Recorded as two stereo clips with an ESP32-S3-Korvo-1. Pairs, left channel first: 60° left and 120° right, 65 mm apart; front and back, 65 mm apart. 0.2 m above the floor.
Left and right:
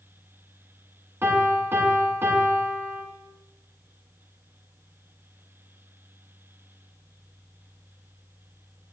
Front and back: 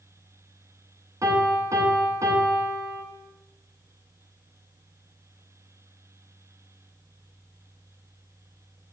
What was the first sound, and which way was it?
A piano, 165° right.